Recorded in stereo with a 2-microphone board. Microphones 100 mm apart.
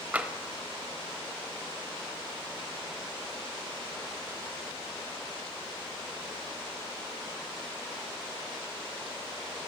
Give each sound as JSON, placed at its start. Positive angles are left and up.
{"t": 0.1, "sound": "tapping", "side_deg": -15, "distance_m": 0.9}